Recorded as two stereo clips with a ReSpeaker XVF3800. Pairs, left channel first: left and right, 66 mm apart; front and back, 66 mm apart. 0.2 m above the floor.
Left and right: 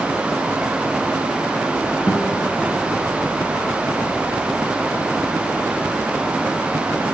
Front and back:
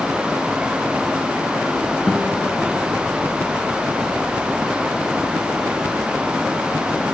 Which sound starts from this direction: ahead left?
A guitar, at 2.1 s.